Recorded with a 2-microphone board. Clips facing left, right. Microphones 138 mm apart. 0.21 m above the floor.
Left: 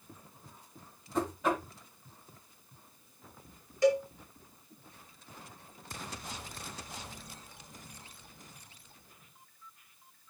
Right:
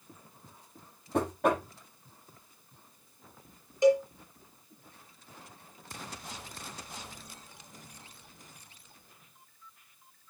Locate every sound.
1.1 s knocking: 60° right (ahead or behind), 6 m
3.8 s a cowbell: 20° right (ahead or behind), 2.5 m